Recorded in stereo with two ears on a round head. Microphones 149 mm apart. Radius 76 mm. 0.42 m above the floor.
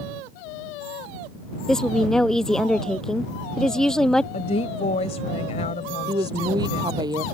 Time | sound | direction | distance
1.7 | a woman speaking | 5° left (ahead or behind) | ?
4.3 | a woman speaking | 40° left (ahead or behind) | ?
6.1 | a woman speaking | 25° right (ahead or behind) | ?